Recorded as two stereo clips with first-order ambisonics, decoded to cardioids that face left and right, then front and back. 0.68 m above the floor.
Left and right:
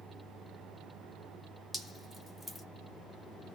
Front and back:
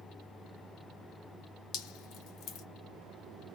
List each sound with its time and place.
1.7 s dripping: 5° right, 0.9 m